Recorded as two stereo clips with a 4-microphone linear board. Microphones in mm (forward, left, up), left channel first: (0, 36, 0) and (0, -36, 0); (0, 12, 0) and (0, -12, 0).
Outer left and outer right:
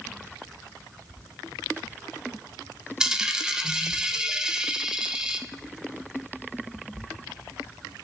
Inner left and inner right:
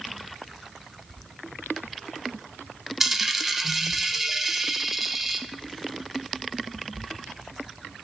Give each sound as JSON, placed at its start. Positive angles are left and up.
{"t": 3.0, "sound": "a dropped coin", "side_deg": -10, "distance_m": 0.7}